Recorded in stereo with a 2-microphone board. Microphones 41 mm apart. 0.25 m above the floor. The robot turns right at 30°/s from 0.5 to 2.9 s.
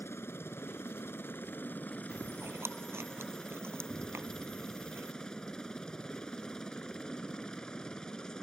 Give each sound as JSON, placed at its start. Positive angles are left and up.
{"t": 0.0, "sound": "a helicopter", "azimuth_deg": 90}
{"t": 2.1, "sound": "chewing", "side_deg": -75}